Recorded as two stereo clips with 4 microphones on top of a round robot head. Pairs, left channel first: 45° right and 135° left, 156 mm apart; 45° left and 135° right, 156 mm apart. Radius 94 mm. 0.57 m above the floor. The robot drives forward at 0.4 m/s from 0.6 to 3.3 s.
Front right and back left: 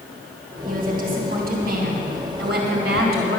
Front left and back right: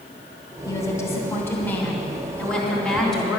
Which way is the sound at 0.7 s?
115° left.